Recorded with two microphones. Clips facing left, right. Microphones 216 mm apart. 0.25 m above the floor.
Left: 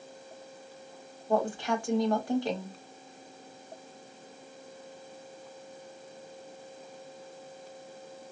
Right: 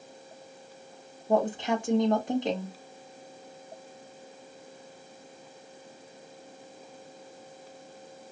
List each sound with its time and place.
1.3 s a woman speaking: 20° right (ahead or behind), 1.1 m